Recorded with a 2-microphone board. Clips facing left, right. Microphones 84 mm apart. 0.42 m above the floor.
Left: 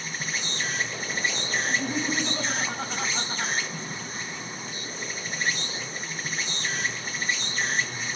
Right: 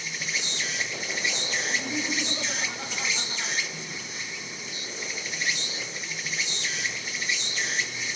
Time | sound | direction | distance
0.0 | an insect | 40° left (ahead or behind) | 0.8 m
1.7 | laughter | 60° left (ahead or behind) | 3 m